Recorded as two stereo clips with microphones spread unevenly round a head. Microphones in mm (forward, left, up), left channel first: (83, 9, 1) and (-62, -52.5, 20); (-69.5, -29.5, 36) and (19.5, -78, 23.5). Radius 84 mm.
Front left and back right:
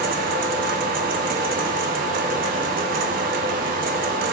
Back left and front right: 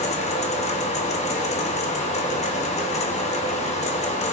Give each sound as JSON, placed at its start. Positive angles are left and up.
{"t": 0.0, "sound": "a fan", "azimuth_deg": 160, "distance_m": 0.7}